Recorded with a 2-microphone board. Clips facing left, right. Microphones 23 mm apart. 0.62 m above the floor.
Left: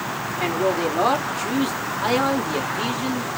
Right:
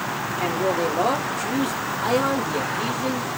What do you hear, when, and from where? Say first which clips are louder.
0.4 s a man speaking: left 1 dB; 50° left (ahead or behind), 1.9 m